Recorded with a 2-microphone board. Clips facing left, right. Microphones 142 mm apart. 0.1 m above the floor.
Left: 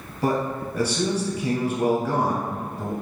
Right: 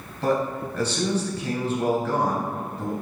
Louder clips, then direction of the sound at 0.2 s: Even; 15° left (ahead or behind).